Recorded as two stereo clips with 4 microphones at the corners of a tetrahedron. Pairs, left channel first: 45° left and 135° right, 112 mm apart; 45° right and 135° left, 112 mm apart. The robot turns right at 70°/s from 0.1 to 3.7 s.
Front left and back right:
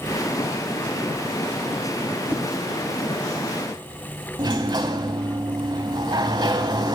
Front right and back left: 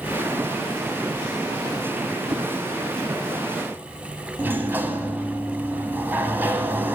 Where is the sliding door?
160° right, 1.2 m.